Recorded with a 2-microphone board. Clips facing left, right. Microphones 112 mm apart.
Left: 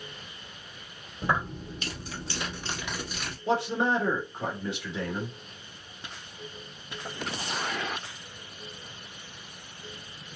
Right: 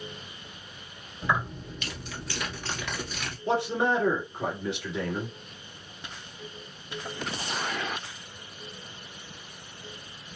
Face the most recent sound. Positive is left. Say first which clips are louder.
# right 1 dB
turn(degrees=5)  # may be behind; listen again after turning